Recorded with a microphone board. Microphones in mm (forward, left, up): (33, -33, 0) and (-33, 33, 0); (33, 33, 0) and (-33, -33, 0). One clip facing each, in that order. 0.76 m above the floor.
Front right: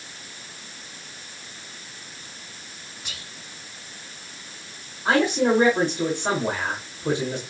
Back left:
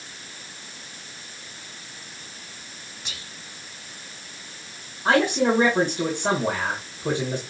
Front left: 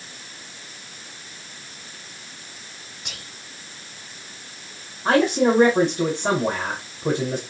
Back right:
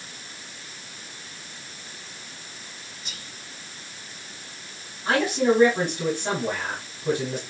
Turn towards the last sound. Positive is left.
turn(degrees=85)